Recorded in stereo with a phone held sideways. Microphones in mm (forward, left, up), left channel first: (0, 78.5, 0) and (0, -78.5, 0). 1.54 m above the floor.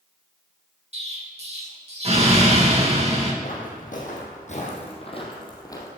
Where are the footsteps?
60° left (ahead or behind), 3.5 m; by 5.9 s 20° left (ahead or behind), 2.5 m.